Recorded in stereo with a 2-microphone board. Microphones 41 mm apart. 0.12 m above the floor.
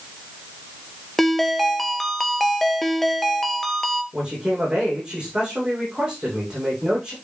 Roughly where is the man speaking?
Right.